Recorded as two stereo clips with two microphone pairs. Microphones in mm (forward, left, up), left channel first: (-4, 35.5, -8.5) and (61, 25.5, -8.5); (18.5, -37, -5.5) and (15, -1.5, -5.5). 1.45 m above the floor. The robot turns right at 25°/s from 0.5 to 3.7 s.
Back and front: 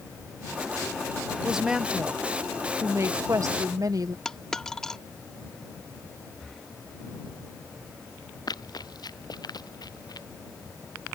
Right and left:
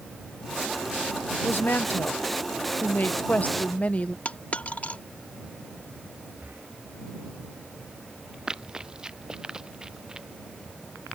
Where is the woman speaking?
90° right; by 4.2 s 35° right.